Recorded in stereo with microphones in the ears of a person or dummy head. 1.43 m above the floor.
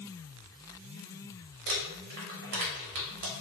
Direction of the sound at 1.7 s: 50° right (ahead or behind).